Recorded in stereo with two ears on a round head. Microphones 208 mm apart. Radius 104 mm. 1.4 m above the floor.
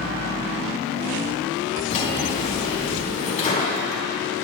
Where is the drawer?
30° left (ahead or behind), 4 m.